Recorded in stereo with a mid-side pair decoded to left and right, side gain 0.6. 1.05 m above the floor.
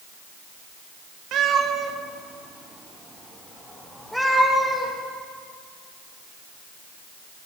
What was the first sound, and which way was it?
A cat meowing, 60° right.